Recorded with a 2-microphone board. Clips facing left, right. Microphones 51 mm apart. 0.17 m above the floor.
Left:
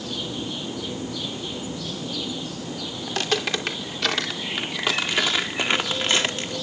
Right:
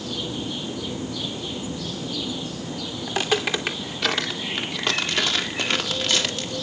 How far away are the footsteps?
About 2.5 m.